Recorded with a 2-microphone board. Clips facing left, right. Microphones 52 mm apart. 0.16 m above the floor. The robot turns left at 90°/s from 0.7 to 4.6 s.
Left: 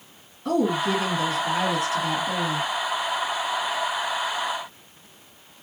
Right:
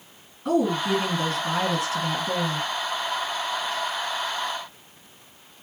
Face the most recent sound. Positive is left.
turn(degrees=5)